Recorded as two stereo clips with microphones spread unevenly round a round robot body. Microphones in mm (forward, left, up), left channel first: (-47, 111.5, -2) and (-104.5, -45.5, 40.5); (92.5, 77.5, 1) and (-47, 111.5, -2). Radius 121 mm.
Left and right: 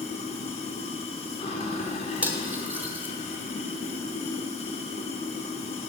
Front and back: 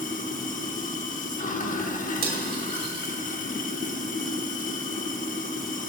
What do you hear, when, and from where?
0.0 s running water: 15° left, 0.8 m
2.2 s cutlery clinking: 165° left, 1.1 m